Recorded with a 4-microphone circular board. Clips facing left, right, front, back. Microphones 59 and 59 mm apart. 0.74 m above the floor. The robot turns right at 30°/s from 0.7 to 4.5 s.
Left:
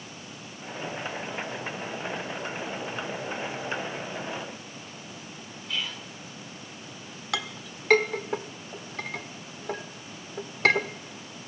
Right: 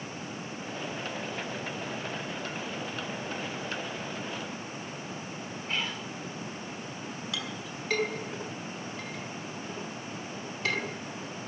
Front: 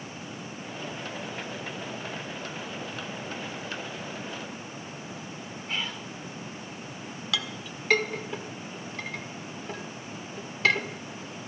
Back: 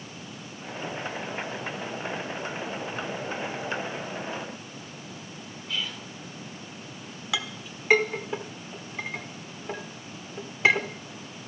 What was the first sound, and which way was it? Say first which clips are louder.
Whispering: even, even; 45° right.